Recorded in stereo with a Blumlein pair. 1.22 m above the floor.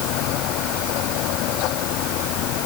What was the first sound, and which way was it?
A fan, 40° left.